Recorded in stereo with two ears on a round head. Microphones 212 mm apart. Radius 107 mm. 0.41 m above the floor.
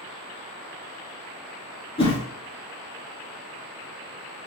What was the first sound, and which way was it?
A whoosh, 25° left (ahead or behind).